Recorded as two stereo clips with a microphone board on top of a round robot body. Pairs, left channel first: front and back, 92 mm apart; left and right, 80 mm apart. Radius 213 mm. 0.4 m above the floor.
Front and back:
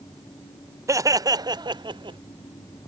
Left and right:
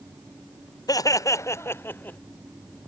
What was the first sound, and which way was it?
Laughter, 125° left.